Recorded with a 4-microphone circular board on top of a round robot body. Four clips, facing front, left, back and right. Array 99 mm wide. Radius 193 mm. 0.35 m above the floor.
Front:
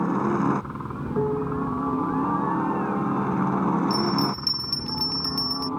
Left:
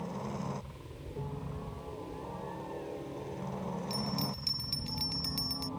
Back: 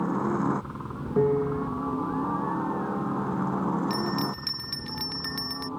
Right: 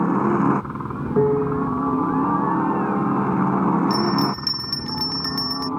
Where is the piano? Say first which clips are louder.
Right 24 dB, back 2 dB; 100° right.